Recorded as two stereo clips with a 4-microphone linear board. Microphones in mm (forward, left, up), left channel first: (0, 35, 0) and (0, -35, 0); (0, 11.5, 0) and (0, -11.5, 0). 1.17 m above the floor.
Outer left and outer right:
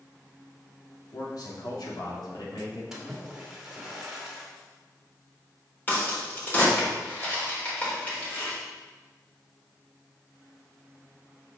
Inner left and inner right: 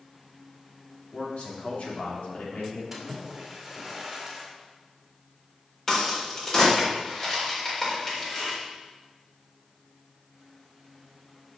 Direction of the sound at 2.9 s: 5° right (ahead or behind).